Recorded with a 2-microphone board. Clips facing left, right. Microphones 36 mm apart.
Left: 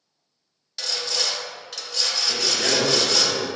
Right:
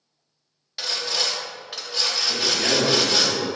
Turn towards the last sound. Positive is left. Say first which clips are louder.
# even
turn(degrees=60)  # may be behind; listen again after turning